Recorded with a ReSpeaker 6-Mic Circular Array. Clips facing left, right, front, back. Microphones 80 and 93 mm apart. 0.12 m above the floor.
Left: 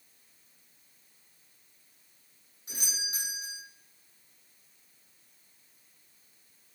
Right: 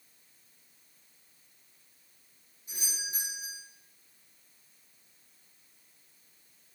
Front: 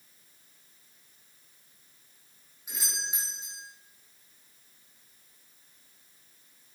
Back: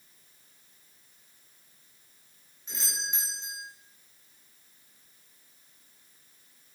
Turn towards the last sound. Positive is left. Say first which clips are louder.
# left 2 dB, back 1 dB
turn(degrees=80)